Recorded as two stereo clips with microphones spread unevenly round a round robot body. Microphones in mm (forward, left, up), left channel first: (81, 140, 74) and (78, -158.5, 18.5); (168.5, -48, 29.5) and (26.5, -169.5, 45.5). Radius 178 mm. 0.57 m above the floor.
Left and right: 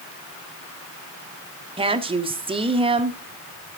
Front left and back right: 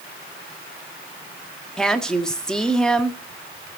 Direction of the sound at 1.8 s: 40° right.